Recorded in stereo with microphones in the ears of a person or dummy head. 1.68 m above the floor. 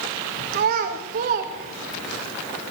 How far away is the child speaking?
About 1.5 m.